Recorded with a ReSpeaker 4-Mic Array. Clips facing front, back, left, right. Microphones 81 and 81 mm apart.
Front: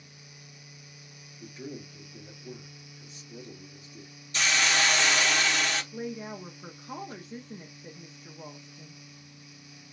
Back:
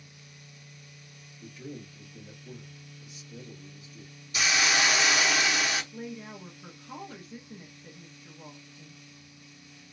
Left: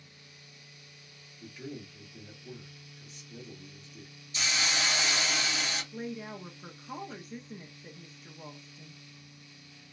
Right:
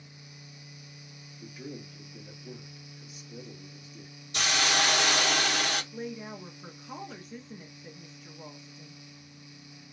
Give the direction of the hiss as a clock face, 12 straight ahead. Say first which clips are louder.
Even, right 5 dB; 3 o'clock.